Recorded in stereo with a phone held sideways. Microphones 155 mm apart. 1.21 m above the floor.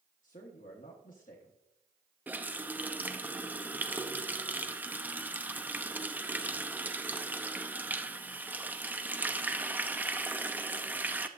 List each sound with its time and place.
0.2 s a man speaking: 60° left (ahead or behind), 1.4 m
2.3 s a running tap: 10° right (ahead or behind), 0.7 m